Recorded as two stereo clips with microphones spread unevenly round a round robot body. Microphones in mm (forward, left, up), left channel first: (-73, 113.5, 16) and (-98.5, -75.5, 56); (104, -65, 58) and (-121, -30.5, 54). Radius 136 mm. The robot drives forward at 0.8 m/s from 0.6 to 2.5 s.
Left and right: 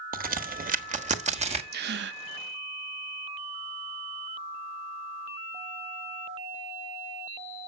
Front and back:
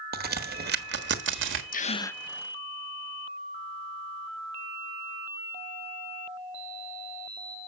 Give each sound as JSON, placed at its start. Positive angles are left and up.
{"t": 0.1, "sound": "a crack", "azimuth_deg": -145, "distance_m": 1.3}
{"t": 1.7, "sound": "a gasp", "azimuth_deg": -55, "distance_m": 0.7}